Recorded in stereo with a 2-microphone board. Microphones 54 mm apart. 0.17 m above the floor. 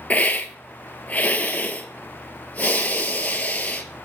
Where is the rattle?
I don't hear a rattle.